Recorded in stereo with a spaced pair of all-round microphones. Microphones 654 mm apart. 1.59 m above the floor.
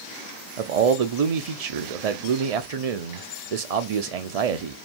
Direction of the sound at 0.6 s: 65° right (ahead or behind).